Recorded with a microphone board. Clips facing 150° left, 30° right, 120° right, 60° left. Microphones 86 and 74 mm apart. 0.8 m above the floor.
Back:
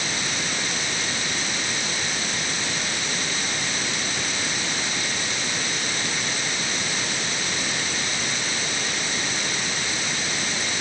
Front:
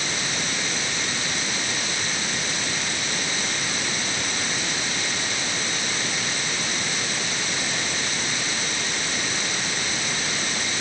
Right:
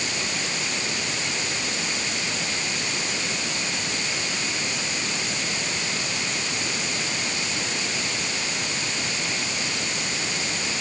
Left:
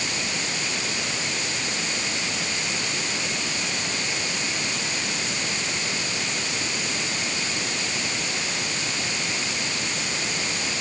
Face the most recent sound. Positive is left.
No sound to turn to.